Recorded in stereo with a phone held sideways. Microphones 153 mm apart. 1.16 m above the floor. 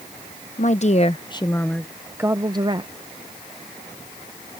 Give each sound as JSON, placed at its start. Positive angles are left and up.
{"t": 0.6, "sound": "a woman speaking", "side_deg": 55}